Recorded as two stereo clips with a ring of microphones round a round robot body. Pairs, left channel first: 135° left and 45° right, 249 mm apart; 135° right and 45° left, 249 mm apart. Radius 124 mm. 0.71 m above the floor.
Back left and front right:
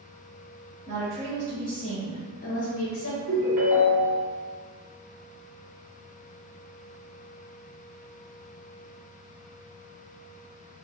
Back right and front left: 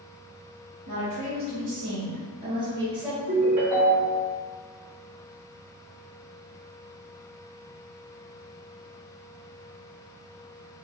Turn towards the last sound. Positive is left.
turn(degrees=-15)